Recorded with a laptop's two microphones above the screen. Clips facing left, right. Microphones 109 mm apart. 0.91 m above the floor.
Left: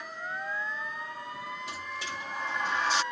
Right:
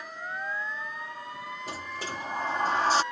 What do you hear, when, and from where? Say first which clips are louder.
1.7 s a sliding door: right 2 dB; 40° right (ahead or behind)